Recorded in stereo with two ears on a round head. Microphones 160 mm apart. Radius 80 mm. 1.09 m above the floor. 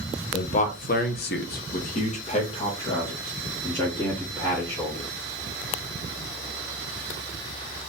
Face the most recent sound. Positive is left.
turn(degrees=20)  # may be behind; listen again after turning